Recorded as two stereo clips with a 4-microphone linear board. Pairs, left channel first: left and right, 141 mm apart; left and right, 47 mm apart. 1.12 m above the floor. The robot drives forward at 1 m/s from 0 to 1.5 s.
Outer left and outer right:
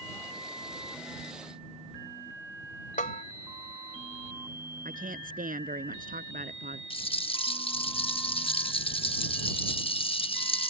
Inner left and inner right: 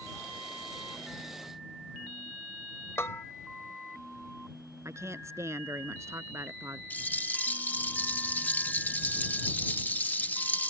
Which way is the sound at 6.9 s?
40° left (ahead or behind).